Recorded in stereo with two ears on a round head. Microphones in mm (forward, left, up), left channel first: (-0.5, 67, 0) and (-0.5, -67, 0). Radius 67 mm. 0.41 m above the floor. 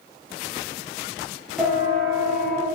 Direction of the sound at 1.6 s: Centre (ahead or behind).